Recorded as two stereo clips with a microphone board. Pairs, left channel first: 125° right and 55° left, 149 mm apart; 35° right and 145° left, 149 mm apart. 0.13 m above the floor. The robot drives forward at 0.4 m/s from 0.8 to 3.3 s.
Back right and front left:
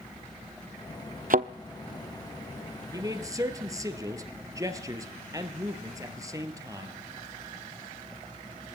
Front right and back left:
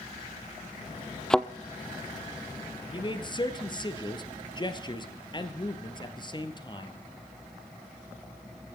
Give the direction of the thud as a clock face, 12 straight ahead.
10 o'clock.